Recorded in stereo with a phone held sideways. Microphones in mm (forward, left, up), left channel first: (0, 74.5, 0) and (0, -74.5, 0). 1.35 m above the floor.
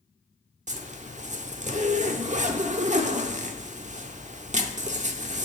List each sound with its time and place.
0.7 s a zipper: 55° right (ahead or behind), 0.5 m